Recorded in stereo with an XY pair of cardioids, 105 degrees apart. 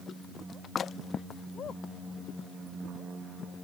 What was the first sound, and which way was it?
Only background noise.